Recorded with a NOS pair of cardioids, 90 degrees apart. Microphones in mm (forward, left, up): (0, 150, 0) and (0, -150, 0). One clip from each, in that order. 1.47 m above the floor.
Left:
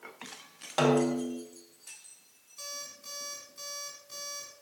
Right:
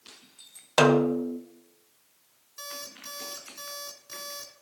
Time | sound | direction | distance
0.8 | a snare drum | 50° right | 1.2 m
2.6 | an alarm clock | 50° right | 2.5 m